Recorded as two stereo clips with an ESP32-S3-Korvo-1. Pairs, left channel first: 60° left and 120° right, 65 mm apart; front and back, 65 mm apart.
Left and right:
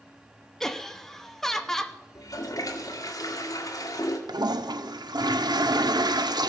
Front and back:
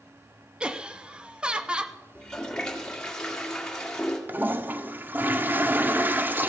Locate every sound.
0.6 s laughter: 135° left, 0.7 m
2.1 s a toilet flushing: 80° left, 1.7 m
4.3 s a toilet flushing: 115° right, 0.6 m